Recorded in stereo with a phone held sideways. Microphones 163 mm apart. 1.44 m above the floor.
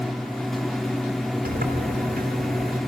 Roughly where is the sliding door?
Right.